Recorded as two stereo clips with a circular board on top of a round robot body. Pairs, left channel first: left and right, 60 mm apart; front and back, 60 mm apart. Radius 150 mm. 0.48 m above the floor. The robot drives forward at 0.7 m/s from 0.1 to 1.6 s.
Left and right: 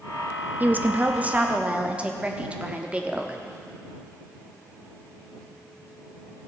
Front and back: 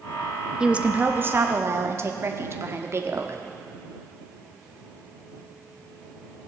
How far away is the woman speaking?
About 1.0 m.